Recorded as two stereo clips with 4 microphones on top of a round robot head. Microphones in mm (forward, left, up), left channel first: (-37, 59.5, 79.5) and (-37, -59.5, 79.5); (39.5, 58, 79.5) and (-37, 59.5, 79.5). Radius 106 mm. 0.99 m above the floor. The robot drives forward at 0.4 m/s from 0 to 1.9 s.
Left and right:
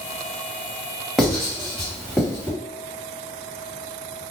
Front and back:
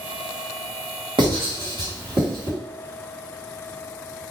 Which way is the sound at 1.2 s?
175° left.